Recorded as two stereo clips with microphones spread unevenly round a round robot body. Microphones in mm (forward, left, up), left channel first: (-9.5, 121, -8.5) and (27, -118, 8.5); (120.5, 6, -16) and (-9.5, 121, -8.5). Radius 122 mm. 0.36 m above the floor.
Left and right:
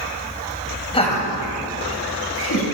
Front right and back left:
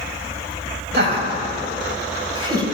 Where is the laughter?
160° left, 1.9 m; by 2.7 s 75° left, 2.5 m.